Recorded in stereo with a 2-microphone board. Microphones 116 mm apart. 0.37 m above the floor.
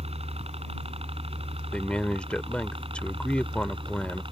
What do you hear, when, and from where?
0.0 s a helicopter: 60° right (ahead or behind); by 4.3 s 50° right (ahead or behind)
1.7 s a man speaking: 10° left (ahead or behind)